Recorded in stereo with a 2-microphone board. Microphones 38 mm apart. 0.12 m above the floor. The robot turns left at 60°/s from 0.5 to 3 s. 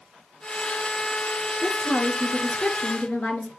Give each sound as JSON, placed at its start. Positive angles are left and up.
{"t": 1.6, "sound": "a woman speaking", "azimuth_deg": 150, "distance_m": 1.8}